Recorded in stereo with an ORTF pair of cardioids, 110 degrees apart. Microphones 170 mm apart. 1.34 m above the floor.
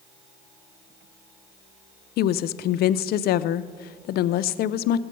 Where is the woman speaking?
65° left, 0.5 m.